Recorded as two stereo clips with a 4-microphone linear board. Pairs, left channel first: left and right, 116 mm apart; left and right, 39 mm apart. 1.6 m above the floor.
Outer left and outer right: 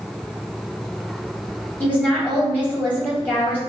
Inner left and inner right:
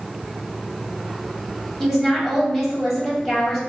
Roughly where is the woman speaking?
Centre.